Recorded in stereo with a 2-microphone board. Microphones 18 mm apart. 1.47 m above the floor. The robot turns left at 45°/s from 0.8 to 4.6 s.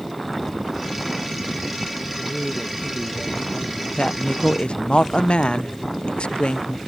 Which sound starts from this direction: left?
A woman speaking, at 4.0 s.